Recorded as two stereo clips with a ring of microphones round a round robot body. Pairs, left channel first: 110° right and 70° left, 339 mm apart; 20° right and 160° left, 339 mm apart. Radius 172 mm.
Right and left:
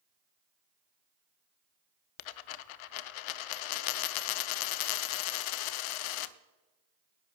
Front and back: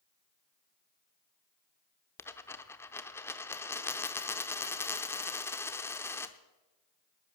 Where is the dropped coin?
105° right, 0.7 m.